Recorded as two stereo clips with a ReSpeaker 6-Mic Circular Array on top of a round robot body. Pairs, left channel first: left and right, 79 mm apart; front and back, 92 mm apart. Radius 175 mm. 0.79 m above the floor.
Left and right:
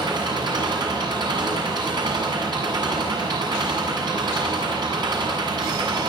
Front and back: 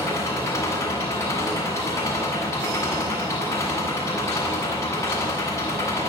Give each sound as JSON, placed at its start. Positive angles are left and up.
{"t": 0.0, "sound": "an engine running", "azimuth_deg": -60, "distance_m": 8.0}